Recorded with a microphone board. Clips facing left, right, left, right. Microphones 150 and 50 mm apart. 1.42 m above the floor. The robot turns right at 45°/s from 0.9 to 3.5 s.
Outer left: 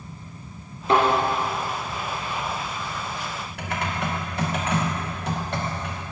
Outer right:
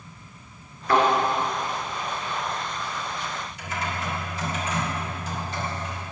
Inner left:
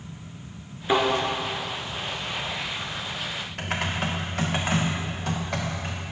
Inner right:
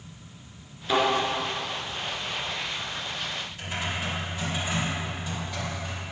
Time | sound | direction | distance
0.9 | a thud | 25° left (ahead or behind) | 4.5 m
3.6 | typing on a keyboard | 65° left (ahead or behind) | 2.0 m